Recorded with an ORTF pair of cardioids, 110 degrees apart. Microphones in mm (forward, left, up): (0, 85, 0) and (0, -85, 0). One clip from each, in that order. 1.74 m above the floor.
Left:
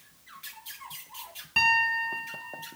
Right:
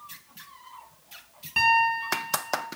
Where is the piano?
Straight ahead, 3 m.